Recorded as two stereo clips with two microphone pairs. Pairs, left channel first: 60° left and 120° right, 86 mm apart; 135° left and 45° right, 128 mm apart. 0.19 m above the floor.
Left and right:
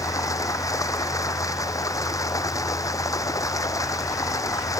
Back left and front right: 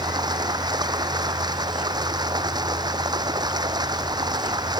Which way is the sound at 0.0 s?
10° left.